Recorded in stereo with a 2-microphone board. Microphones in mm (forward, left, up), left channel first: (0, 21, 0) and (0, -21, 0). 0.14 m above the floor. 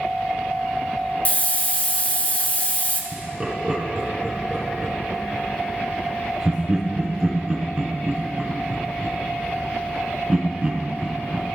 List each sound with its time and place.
1.2 s a hiss: 35° left (ahead or behind), 0.8 m
3.1 s laughter: 15° right (ahead or behind), 1.3 m